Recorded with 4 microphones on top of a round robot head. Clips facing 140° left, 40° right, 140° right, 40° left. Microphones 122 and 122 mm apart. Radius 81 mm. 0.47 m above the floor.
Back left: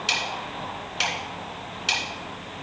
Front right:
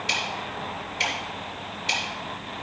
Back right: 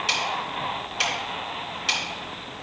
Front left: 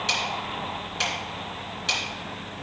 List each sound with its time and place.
0.1 s ticking: 135° left, 2.5 m